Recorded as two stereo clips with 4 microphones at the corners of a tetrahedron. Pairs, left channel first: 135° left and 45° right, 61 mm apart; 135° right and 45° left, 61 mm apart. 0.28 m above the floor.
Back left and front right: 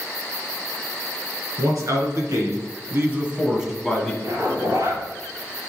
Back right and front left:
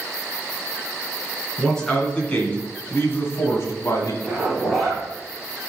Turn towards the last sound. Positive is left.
turn(degrees=-45)